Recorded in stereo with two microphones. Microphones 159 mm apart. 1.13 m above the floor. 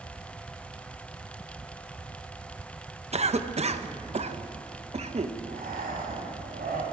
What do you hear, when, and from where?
3.1 s a cough: 40° right (ahead or behind), 0.8 m
5.5 s breathing: 65° right (ahead or behind), 2.5 m